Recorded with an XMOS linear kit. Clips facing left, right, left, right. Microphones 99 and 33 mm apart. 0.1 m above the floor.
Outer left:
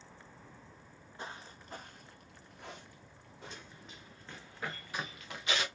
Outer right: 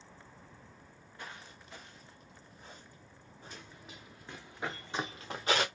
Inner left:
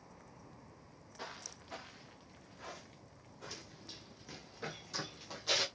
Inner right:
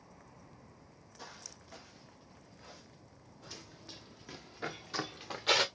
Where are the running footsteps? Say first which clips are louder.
Outer right 1 dB, even; 5° right (ahead or behind), 1.7 m; by 5.7 s 45° right (ahead or behind), 0.9 m.